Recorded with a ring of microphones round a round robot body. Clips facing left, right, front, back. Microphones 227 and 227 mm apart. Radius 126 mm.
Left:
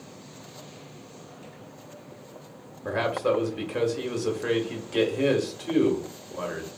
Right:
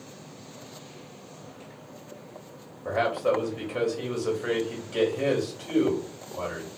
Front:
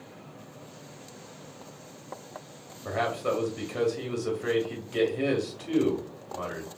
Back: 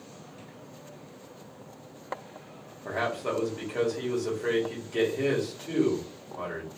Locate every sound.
2.9 s a man speaking: 65° left, 1.1 m